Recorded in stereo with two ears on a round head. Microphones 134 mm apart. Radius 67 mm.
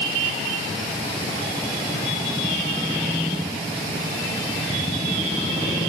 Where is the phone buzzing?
I don't hear a phone buzzing.